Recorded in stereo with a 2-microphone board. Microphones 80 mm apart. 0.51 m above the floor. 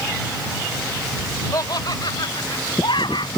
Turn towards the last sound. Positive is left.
turn(degrees=80)